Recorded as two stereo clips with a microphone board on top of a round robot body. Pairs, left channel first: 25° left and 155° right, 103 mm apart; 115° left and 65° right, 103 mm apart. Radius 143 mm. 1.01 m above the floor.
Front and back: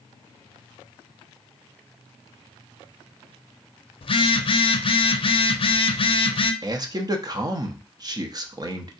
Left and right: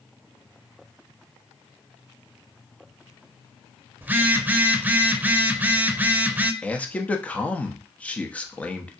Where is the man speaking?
175° right, 0.8 m.